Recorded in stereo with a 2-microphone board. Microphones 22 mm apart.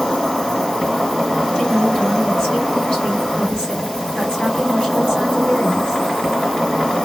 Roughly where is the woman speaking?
Left.